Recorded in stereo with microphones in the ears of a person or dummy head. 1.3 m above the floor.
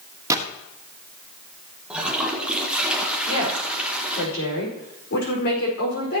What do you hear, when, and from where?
0.3 s a gunshot: 20° right (ahead or behind), 1.3 m
1.9 s a toilet flushing: 5° right (ahead or behind), 1.3 m
3.3 s a woman speaking: 65° left (ahead or behind), 4.5 m